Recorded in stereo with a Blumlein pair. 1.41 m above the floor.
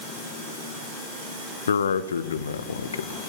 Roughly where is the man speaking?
Left.